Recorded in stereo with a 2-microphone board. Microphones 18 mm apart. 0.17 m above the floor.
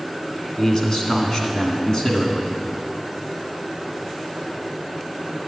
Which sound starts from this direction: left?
A man speaking, at 0.6 s.